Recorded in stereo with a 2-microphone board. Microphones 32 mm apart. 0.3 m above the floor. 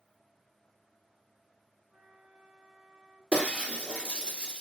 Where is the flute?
35° right (ahead or behind), 3 m.